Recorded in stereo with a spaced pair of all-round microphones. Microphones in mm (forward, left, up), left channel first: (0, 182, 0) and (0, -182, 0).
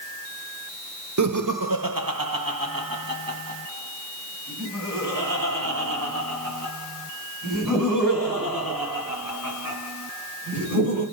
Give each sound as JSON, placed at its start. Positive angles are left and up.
{"t": 1.2, "sound": "laughter", "side_deg": -50, "distance_m": 0.9}